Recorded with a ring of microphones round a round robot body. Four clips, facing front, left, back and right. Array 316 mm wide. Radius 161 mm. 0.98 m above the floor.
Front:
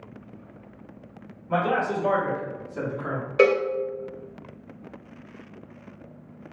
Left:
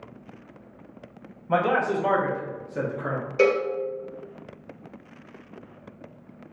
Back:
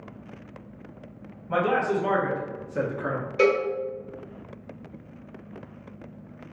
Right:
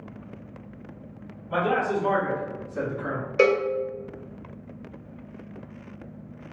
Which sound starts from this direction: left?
A man speaking, at 1.5 s.